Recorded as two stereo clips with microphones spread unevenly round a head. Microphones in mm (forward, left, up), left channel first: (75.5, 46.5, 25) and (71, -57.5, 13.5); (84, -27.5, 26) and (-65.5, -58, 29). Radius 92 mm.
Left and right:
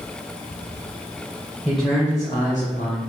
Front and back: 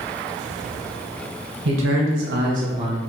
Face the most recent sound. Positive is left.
turn(degrees=110)